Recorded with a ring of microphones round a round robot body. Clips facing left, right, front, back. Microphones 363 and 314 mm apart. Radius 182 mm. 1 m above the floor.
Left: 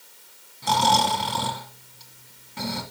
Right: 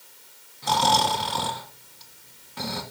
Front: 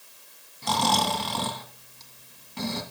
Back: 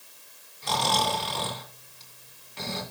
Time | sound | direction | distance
0.6 | snoring | 35° left | 2.0 m